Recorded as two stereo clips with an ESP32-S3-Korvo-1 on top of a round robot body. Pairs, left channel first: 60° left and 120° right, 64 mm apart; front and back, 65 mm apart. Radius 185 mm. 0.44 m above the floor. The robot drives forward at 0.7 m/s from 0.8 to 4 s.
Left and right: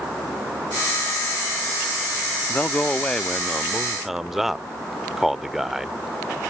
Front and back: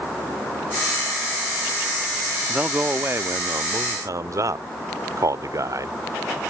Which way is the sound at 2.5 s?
110° left.